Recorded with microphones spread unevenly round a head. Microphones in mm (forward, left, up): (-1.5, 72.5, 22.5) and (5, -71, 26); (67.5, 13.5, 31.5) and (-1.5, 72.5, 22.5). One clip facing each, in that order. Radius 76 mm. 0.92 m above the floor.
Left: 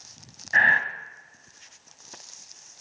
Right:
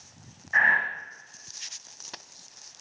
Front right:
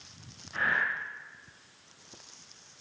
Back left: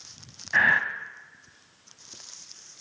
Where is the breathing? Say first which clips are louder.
Left 2 dB, back left 7 dB; 145° left, 1.3 m.